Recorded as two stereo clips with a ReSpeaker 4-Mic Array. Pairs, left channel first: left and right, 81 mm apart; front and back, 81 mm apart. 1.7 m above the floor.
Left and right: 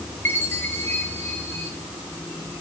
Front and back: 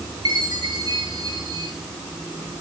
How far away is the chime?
About 8 m.